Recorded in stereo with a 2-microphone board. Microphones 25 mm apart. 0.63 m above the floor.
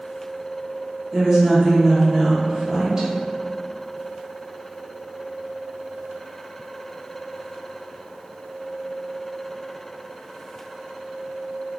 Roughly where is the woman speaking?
Right.